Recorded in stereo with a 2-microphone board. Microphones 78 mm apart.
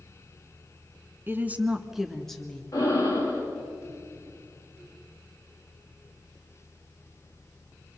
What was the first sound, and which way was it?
A woman speaking, 30° right (ahead or behind).